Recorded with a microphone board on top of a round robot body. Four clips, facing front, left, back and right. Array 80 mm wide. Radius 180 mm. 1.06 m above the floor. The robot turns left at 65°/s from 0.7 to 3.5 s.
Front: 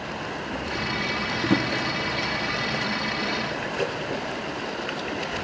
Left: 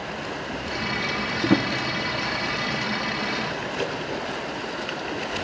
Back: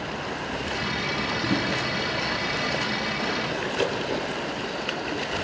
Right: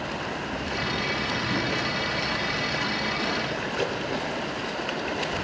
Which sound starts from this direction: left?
A drawer, at 1.4 s.